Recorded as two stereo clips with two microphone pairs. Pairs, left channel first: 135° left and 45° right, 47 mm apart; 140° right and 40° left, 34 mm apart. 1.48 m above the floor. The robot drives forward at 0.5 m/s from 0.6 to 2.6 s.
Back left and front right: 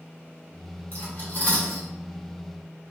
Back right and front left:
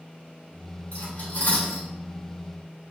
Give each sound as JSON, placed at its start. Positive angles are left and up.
{"t": 0.9, "sound": "cutlery clinking", "azimuth_deg": -165, "distance_m": 2.0}